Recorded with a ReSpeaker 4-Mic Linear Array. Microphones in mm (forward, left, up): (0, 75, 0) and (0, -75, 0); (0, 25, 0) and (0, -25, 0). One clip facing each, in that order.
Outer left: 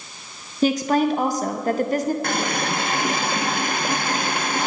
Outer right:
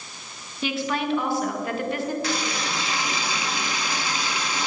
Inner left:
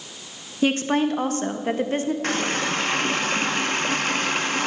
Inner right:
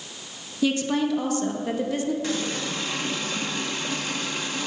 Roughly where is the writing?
No writing in this recording.